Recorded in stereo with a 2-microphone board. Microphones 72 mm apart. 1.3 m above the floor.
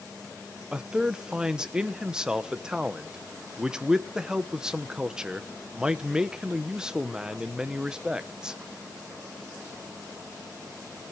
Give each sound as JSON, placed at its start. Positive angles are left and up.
{"t": 0.7, "sound": "a man speaking", "side_deg": -10, "distance_m": 0.9}